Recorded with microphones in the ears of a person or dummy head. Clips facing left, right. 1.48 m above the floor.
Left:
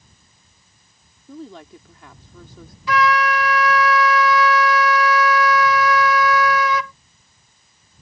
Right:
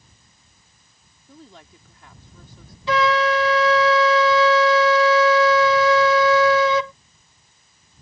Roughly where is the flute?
Right.